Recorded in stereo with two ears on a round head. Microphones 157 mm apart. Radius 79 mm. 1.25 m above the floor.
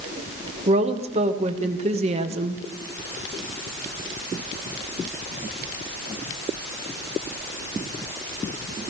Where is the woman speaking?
40° right (ahead or behind), 1.2 m.